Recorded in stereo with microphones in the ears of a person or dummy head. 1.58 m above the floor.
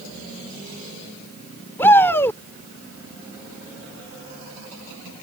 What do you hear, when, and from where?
1.8 s a shout: 10° left (ahead or behind)